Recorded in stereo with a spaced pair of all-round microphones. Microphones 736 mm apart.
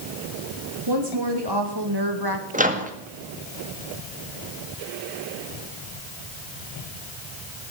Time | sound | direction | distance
0.9 | a woman speaking | 35° right (ahead or behind) | 3.5 m
2.5 | a microwave | 10° right (ahead or behind) | 1.8 m